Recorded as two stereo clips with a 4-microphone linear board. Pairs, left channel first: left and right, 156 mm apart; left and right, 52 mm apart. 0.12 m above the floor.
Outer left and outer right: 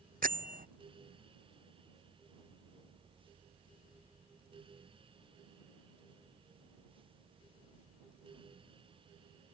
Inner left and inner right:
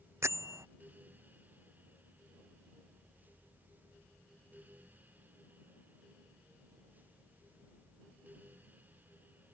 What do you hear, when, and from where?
0.2 s a bell: 65° right (ahead or behind)